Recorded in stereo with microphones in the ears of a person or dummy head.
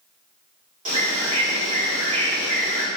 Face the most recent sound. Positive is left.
turn(degrees=-45)  # may be behind; listen again after turning